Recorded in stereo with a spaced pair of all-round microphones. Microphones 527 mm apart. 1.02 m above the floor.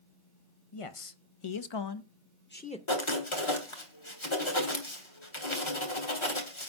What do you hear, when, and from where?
0.7 s a man speaking: 75° left (ahead or behind), 0.9 m; by 2.8 s 10° left (ahead or behind), 0.7 m
2.9 s writing: 60° left (ahead or behind), 1.7 m